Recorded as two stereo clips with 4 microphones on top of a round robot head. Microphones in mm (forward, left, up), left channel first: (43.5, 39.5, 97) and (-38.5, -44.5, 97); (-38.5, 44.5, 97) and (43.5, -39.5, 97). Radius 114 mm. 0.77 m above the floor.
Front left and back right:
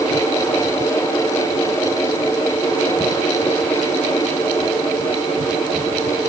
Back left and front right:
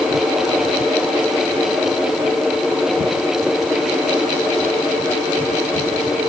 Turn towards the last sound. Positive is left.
No sound to turn to.